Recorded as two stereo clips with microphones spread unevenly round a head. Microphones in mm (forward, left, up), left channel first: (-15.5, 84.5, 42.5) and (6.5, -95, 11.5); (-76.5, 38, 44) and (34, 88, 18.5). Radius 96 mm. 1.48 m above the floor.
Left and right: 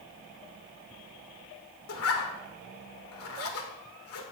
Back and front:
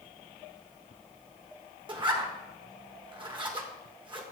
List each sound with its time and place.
1.9 s a zipper: 80° left, 1.7 m